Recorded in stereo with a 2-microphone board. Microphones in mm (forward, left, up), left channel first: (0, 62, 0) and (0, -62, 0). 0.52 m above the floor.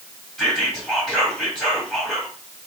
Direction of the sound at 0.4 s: 5° left (ahead or behind).